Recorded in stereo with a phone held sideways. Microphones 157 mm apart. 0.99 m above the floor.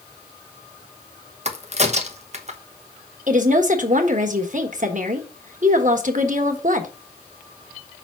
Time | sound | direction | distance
1.4 | a crack | 45° right (ahead or behind) | 0.9 m
3.3 | a woman speaking | 55° right (ahead or behind) | 1.4 m